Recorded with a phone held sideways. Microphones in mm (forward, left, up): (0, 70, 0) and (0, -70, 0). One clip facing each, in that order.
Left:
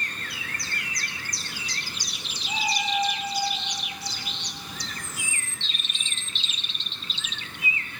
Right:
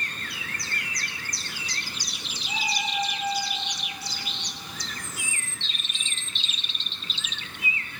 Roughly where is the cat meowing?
Left.